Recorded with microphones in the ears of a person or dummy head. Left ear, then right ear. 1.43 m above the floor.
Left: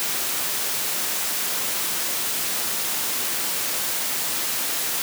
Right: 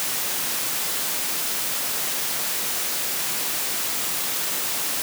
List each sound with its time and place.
Only background noise.